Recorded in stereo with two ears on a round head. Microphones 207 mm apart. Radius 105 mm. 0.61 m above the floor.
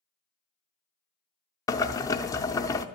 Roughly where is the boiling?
Centre.